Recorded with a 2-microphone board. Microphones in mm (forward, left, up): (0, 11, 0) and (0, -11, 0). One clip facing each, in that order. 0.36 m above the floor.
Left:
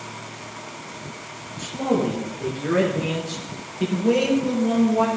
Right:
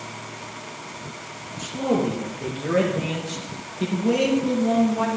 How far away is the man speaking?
About 6 m.